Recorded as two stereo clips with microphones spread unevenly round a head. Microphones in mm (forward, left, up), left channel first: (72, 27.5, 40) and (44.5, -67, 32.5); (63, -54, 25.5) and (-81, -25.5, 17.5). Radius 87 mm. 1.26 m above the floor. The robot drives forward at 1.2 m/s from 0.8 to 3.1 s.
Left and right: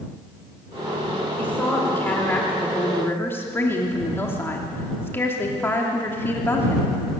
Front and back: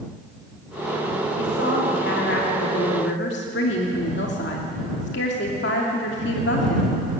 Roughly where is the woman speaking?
Ahead.